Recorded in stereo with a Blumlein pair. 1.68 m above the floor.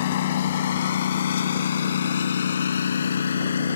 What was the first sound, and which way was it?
A lawn mower, 55° left.